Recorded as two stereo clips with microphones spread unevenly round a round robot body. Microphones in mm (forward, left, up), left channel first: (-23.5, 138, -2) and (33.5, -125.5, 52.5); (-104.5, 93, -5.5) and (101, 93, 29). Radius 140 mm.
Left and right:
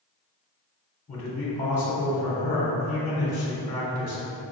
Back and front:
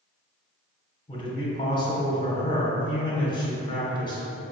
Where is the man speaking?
150° left, 1.0 m.